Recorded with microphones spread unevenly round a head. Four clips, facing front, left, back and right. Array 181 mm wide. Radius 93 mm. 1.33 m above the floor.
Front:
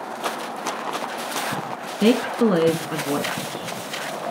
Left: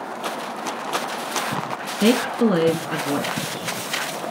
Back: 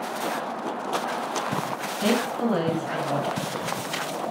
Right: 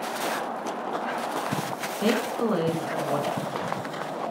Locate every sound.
2.0 s a woman speaking: 30° left, 1.8 m